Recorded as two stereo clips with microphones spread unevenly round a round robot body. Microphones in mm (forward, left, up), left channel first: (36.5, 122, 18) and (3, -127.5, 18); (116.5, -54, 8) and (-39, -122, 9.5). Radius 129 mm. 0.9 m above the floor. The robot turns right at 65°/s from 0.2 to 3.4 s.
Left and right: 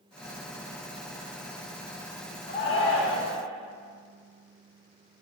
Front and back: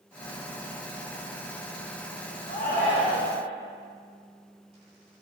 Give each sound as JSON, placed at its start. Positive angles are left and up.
{"t": 2.5, "sound": "a shout", "azimuth_deg": 45, "distance_m": 1.3}